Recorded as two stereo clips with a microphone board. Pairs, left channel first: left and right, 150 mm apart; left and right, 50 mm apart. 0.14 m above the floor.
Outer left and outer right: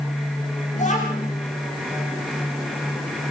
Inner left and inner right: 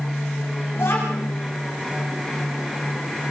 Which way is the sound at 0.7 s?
55° left (ahead or behind).